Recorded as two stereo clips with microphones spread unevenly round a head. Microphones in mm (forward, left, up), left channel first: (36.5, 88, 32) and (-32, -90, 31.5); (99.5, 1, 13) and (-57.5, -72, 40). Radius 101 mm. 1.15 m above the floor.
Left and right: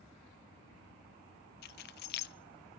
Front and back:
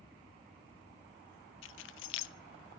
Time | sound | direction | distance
1.6 | keys jangling | 30° left | 0.6 m